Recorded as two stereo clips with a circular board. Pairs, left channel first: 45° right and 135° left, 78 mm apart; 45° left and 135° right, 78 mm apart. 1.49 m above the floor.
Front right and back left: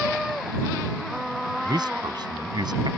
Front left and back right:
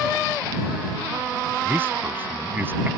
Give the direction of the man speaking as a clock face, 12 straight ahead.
7 o'clock.